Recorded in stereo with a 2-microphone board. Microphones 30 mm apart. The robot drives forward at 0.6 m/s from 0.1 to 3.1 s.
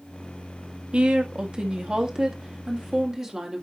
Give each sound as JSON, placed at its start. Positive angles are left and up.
{"t": 0.9, "sound": "a woman speaking", "side_deg": -40, "distance_m": 1.2}